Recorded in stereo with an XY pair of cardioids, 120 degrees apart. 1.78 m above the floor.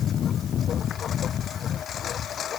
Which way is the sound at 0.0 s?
50° left.